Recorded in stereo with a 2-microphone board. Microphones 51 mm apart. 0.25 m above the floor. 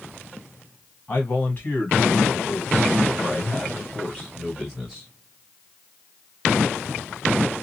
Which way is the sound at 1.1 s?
45° left (ahead or behind).